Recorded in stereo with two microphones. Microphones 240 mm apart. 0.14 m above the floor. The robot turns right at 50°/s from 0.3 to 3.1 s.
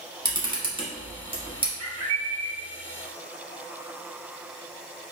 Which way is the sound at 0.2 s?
15° right (ahead or behind).